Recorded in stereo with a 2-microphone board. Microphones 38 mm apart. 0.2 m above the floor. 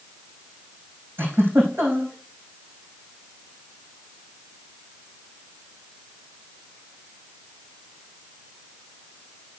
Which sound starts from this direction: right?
A giggle, at 1.2 s.